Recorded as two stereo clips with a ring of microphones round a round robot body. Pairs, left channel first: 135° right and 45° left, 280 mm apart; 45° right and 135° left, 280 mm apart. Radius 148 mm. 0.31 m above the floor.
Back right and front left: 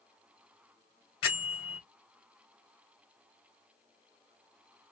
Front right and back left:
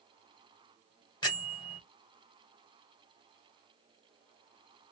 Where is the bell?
115° right, 2 m.